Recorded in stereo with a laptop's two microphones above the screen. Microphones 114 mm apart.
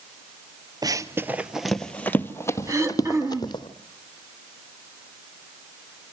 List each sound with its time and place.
0.8 s running footsteps: 35° right (ahead or behind), 1.6 m; by 3.7 s 40° left (ahead or behind), 3 m
2.7 s throat clearing: 30° right (ahead or behind), 2 m